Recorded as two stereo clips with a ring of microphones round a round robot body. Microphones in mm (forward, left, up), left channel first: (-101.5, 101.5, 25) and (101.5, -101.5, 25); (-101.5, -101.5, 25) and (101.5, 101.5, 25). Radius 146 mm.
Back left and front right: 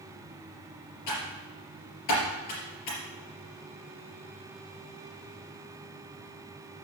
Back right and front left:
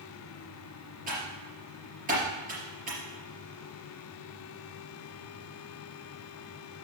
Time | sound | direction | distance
1.1 | typing on a keyboard | 110° left | 4 m